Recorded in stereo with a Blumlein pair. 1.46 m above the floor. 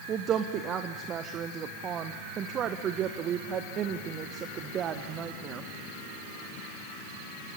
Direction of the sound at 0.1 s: 30° right.